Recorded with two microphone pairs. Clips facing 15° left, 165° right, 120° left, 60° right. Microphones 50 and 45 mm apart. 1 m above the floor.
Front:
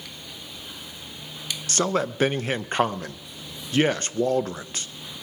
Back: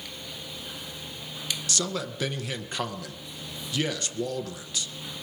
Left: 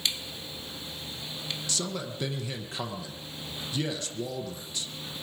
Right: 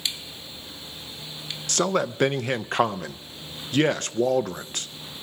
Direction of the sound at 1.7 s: 25° right.